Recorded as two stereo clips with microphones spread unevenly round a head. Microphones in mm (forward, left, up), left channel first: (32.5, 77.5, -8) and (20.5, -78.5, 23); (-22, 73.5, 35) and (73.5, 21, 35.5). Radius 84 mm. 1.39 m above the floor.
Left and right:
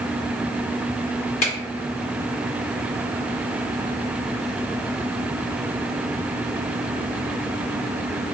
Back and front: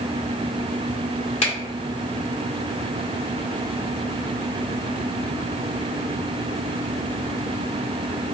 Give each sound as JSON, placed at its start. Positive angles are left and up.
{"t": 1.4, "sound": "a finger snap", "azimuth_deg": 135, "distance_m": 1.8}